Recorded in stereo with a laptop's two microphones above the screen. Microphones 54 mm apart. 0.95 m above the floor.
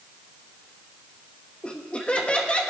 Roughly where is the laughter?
Left.